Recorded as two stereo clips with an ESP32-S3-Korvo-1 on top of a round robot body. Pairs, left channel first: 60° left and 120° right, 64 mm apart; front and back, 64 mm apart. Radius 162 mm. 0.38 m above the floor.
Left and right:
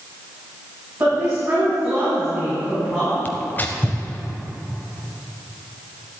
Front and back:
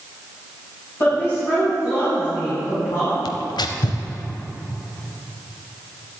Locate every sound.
1.0 s a woman speaking: 55° right, 4.5 m; by 3.1 s 20° right, 5 m
3.2 s tearing paper: 5° right, 0.5 m